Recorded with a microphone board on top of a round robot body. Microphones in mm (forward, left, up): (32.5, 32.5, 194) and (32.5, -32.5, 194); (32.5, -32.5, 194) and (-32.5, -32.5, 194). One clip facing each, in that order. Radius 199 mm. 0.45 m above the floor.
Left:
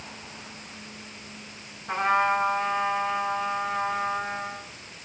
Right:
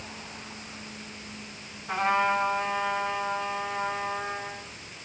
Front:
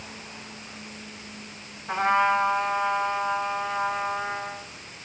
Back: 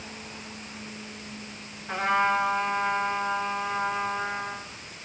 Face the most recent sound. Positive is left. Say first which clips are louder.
# left 2 dB, front 2 dB
turn(degrees=30)